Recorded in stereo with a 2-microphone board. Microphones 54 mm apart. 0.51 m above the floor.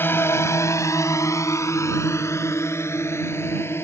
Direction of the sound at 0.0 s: 45° left (ahead or behind).